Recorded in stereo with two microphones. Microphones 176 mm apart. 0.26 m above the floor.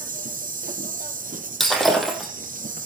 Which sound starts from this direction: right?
An insect, at 0.0 s.